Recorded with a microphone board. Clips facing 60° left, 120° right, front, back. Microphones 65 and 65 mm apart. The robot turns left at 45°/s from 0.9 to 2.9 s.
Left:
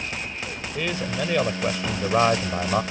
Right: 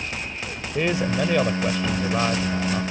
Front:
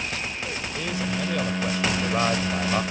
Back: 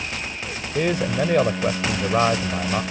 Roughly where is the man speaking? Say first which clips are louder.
Right 5 dB, back 9 dB; behind.